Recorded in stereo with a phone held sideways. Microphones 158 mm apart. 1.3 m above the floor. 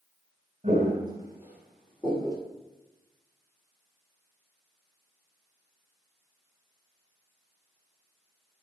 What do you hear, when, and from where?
0.6 s footsteps: 40° right (ahead or behind), 1.7 m; by 2.4 s 25° left (ahead or behind), 1.6 m